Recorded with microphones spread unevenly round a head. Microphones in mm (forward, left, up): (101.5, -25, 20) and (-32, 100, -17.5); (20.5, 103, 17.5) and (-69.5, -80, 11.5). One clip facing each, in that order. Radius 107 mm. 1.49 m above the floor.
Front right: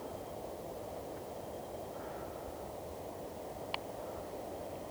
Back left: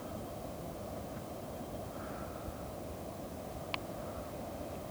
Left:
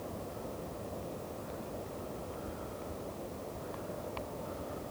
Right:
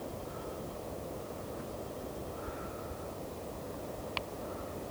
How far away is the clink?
I don't hear a clink.